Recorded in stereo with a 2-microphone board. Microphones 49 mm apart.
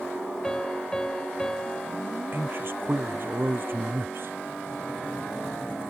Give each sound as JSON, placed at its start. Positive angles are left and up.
{"t": 0.4, "sound": "a piano", "side_deg": 15}
{"t": 2.3, "sound": "a man speaking", "side_deg": -50}